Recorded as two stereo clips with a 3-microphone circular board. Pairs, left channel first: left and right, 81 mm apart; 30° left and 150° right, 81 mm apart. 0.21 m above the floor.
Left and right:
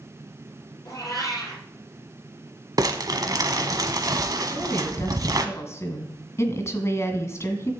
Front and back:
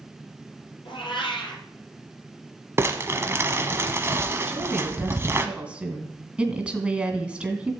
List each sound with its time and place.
0.8 s a cat meowing: 40° left, 3 m
2.8 s crumpling: 100° right, 1.1 m
4.5 s a woman speaking: 135° left, 1.8 m